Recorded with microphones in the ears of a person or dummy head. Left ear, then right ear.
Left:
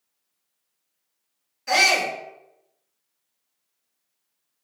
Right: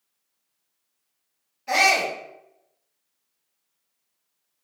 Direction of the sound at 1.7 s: 40° left (ahead or behind).